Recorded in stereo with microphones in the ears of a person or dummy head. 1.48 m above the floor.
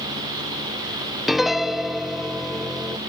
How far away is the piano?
About 0.6 m.